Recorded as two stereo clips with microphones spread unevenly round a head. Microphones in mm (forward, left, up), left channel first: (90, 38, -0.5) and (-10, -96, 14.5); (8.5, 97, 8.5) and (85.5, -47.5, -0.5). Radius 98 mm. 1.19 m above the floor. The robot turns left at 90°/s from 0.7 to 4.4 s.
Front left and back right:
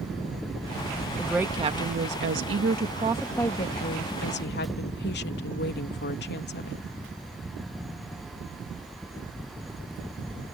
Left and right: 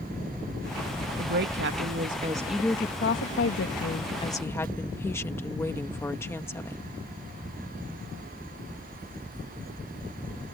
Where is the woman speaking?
25° right; by 6.8 s 45° left.